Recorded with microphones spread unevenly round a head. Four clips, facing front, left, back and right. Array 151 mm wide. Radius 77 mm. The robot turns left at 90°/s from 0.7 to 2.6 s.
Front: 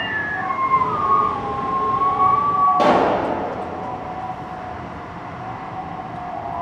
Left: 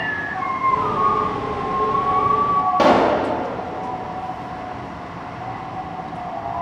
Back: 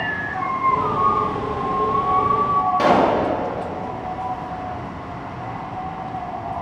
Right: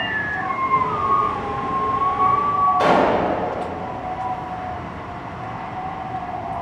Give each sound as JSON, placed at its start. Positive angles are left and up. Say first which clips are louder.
{"t": 2.8, "sound": "a pop", "louder": "left 3 dB, even", "azimuth_deg": 75, "distance_m": 2.5}